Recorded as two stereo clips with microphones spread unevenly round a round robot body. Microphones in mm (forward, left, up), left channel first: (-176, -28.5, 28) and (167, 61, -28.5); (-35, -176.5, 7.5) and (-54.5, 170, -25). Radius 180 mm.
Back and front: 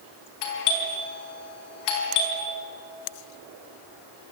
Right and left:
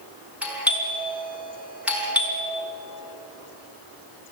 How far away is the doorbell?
About 5.5 m.